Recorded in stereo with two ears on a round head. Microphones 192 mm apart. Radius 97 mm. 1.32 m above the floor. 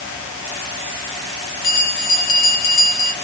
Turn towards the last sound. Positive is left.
turn(degrees=45)  # may be behind; listen again after turning